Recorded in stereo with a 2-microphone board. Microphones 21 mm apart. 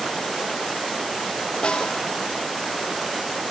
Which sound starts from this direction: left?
A snare drum, at 1.6 s.